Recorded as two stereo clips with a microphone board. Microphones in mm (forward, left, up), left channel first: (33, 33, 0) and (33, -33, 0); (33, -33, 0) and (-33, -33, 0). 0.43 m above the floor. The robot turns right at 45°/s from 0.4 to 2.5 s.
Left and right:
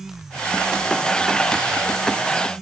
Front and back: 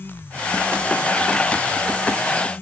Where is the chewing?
No chewing in this recording.